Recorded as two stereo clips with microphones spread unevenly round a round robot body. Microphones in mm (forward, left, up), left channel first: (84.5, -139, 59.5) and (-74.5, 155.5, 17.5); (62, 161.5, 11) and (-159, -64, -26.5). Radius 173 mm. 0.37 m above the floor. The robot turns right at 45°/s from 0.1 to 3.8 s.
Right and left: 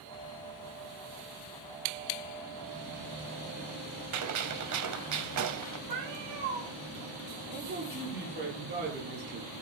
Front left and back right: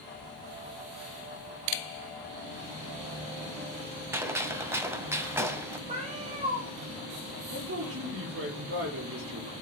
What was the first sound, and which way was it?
A gunshot, 145° left.